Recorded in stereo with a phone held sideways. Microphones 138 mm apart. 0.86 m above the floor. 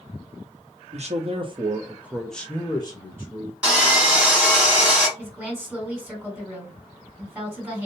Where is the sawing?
10° right (ahead or behind), 2.0 m.